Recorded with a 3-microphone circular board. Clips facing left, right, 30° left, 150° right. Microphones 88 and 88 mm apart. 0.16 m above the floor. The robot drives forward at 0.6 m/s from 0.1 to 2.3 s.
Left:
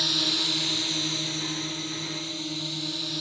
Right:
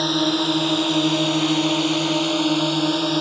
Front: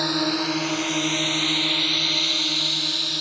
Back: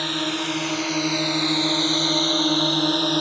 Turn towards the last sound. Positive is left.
turn(degrees=-110)